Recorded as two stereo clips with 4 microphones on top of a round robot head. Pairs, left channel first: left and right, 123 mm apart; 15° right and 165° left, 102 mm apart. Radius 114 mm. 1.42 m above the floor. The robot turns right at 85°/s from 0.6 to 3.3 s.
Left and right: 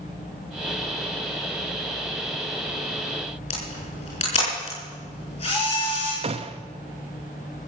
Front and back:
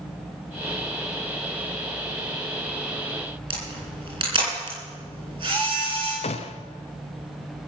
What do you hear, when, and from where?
3.5 s a camera shutter: 125° left, 8.5 m
6.2 s a gunshot: 45° right, 0.6 m